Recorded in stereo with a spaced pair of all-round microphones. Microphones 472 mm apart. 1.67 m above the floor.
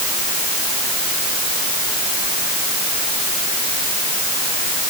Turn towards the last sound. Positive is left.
No sound to turn to.